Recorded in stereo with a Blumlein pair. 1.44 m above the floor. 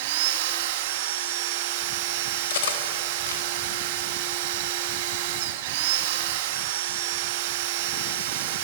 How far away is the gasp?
I don't hear a gasp.